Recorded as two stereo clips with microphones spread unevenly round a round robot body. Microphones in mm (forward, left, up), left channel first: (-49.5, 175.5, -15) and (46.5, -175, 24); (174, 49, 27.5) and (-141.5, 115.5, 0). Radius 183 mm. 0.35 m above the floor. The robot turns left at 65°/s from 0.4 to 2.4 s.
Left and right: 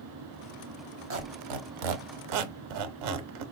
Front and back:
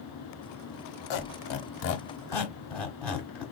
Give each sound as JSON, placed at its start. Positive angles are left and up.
{"t": 1.1, "sound": "a squeak", "azimuth_deg": -15, "distance_m": 1.0}